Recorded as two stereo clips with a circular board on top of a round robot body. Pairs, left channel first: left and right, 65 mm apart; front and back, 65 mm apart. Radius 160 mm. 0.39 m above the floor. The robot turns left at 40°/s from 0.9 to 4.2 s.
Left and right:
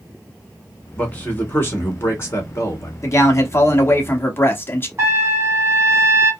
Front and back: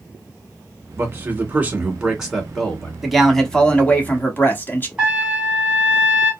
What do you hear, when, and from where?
1.0 s a man speaking: 150° left, 1.7 m; by 2.9 s 70° left, 1.7 m
3.0 s a man speaking: 95° left, 1.2 m; by 4.9 s 45° left, 1.2 m
5.0 s a trumpet: 110° right, 1.9 m